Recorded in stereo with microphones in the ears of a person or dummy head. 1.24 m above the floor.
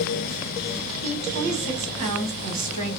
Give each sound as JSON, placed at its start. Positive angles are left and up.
{"t": 1.0, "sound": "a woman speaking", "side_deg": -45, "distance_m": 1.3}